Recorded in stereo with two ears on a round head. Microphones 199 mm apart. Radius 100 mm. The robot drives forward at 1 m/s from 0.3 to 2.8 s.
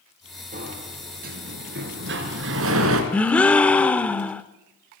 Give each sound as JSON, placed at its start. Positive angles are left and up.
{"t": 0.5, "sound": "a sliding door", "side_deg": -35, "distance_m": 4.0}
{"t": 3.1, "sound": "a gasp", "side_deg": 5, "distance_m": 0.9}